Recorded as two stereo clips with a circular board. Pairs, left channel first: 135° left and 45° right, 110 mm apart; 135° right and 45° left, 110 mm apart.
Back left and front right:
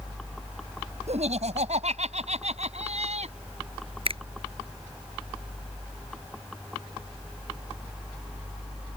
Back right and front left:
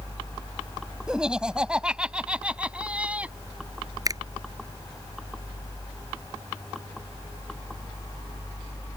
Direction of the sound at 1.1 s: 40° right.